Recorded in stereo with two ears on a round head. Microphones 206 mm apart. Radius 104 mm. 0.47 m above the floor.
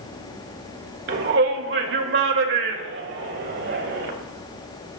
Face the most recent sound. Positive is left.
turn(degrees=-50)  # may be behind; listen again after turning